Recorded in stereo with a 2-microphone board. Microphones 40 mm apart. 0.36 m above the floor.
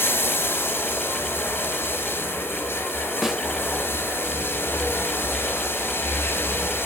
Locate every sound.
0.0 s running water: 80° left, 3 m
3.2 s a snare drum: 10° right (ahead or behind), 0.8 m